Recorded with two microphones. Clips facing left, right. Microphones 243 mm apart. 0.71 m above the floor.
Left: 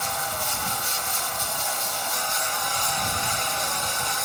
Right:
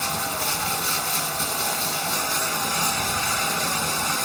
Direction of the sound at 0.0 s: 80° right.